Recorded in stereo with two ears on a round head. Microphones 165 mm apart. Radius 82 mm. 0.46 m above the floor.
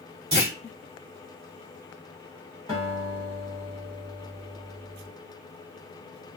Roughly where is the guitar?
Centre.